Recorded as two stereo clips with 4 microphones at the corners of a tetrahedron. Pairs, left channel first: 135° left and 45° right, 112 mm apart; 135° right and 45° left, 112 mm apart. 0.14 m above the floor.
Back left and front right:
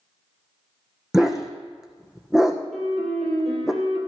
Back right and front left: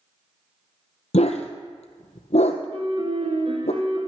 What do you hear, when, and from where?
1.1 s a dog barking: 130° right, 1.4 m
2.7 s a piano: 45° left, 3 m